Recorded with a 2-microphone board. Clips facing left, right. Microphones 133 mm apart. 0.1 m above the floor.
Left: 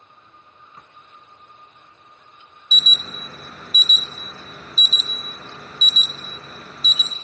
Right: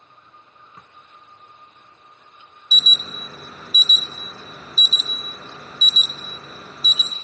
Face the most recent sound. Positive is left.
turn(degrees=-5)  # may be behind; listen again after turning